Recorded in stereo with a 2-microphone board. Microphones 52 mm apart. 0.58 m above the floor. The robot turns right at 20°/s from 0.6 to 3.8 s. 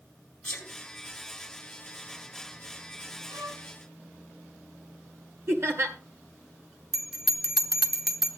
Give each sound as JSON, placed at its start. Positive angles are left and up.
{"t": 0.4, "sound": "a sneeze", "side_deg": 15, "distance_m": 4.5}
{"t": 3.3, "sound": "a violin", "side_deg": -90, "distance_m": 3.0}
{"t": 5.5, "sound": "laughter", "side_deg": -50, "distance_m": 1.8}
{"t": 6.9, "sound": "a bell", "side_deg": -5, "distance_m": 1.1}